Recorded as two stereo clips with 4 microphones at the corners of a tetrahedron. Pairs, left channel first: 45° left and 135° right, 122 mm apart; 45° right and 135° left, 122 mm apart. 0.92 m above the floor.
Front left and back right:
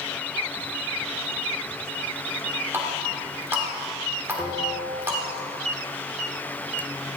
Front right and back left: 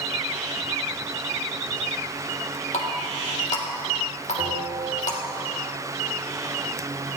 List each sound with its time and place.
2.7 s a running tap: 65° right, 1.7 m
4.4 s a bell: 100° left, 4.5 m